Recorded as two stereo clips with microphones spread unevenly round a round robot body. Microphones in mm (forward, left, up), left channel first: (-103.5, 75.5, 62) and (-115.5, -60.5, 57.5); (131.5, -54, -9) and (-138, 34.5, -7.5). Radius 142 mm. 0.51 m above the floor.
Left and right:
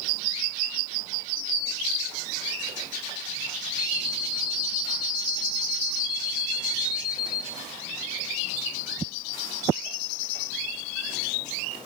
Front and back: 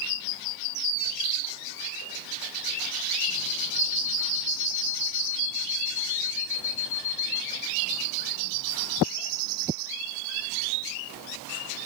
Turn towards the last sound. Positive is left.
turn(degrees=45)